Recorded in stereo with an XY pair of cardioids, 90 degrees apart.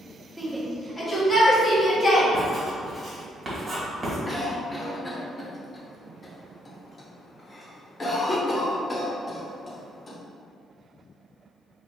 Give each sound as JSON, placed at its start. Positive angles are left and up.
{"t": 0.4, "sound": "a shout", "azimuth_deg": -15, "distance_m": 0.8}
{"t": 2.3, "sound": "writing", "azimuth_deg": -35, "distance_m": 1.6}
{"t": 4.3, "sound": "a cough", "azimuth_deg": 30, "distance_m": 1.1}